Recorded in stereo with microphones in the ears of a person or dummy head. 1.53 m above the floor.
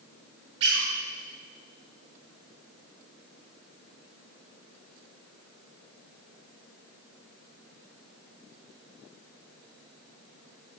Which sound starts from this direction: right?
A squeak, at 0.6 s.